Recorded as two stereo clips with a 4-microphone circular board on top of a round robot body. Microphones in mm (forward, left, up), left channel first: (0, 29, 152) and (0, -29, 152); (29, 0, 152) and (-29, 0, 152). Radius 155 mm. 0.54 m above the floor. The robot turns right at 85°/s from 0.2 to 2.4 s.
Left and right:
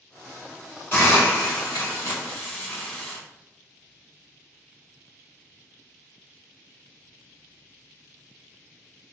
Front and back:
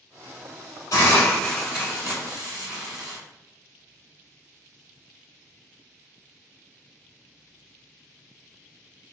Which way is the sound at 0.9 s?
30° left.